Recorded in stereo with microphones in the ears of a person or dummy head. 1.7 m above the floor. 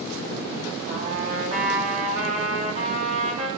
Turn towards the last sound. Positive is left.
turn(degrees=-45)  # may be behind; listen again after turning